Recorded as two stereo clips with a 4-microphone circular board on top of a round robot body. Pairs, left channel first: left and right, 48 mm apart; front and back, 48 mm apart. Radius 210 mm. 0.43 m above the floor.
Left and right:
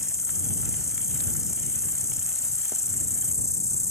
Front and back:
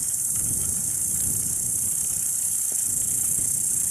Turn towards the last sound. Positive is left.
turn(degrees=90)